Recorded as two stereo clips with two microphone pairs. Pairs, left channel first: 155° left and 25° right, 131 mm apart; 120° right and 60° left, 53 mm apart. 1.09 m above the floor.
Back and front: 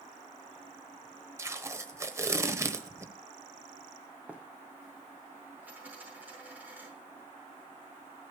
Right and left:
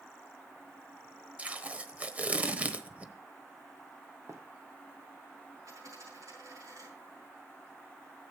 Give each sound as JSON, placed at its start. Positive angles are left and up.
{"t": 1.4, "sound": "tape being pulled", "azimuth_deg": 25, "distance_m": 0.9}
{"t": 4.3, "sound": "running footsteps", "azimuth_deg": 55, "distance_m": 2.0}
{"t": 5.7, "sound": "a dropped coin", "azimuth_deg": 50, "distance_m": 7.0}